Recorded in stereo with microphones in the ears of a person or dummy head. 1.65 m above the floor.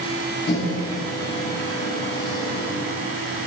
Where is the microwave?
30° left (ahead or behind), 2.5 m.